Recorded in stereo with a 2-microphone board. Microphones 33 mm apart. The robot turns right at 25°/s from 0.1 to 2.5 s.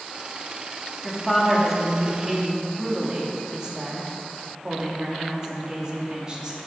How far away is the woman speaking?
About 2.5 m.